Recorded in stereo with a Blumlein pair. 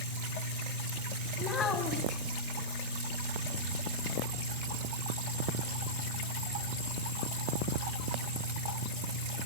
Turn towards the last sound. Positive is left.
turn(degrees=30)